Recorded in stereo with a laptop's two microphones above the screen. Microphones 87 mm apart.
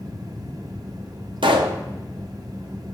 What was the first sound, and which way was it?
A fan, 45° right (ahead or behind).